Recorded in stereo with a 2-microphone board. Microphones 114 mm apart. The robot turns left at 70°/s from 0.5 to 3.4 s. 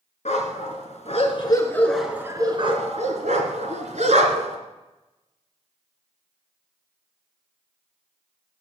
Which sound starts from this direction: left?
A dog barking, at 0.2 s.